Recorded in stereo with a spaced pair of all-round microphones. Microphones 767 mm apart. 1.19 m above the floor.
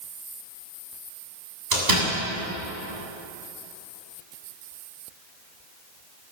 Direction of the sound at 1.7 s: 60° right (ahead or behind).